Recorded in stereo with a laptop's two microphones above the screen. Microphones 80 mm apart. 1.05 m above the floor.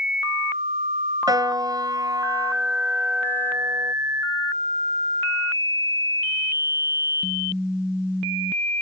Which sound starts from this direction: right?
A piano, at 1.3 s.